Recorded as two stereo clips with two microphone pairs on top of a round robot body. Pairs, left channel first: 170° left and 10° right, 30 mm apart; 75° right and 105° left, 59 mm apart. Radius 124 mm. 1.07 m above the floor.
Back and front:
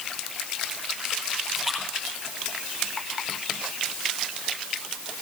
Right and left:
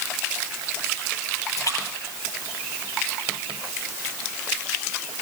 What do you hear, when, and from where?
1.6 s a splash: 110° right, 8 m